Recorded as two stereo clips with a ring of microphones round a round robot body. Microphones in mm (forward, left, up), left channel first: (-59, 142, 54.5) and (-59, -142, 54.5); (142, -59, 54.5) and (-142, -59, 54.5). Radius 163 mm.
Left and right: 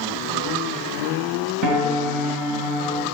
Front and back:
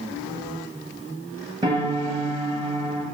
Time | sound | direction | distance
1.6 | a piano | 105° right | 1.4 m